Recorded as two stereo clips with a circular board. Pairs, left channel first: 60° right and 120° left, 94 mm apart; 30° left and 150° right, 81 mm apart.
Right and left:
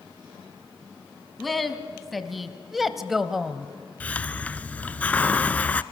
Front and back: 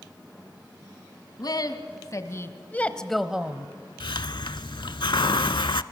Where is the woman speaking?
30° left, 1.8 m; by 3.7 s 160° right, 1.1 m.